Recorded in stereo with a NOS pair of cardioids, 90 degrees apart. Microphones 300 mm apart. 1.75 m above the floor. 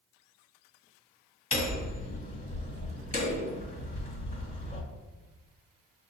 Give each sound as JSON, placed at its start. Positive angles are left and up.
{"t": 1.5, "sound": "hammering", "azimuth_deg": 30, "distance_m": 1.9}